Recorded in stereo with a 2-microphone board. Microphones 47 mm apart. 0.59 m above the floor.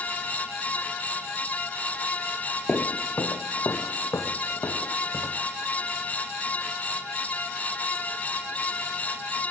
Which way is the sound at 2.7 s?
35° left (ahead or behind).